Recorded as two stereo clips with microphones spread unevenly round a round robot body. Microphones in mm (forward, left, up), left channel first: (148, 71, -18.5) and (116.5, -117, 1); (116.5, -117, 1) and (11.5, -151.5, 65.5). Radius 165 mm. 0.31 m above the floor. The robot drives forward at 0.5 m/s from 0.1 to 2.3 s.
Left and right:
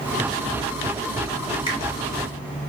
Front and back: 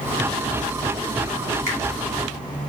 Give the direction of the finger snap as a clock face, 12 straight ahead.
9 o'clock.